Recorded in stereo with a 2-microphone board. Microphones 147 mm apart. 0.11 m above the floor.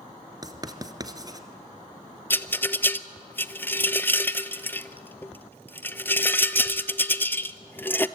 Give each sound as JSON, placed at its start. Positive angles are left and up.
{"t": 0.4, "sound": "writing", "side_deg": -25, "distance_m": 1.3}
{"t": 2.3, "sound": "a rattle", "side_deg": 15, "distance_m": 0.6}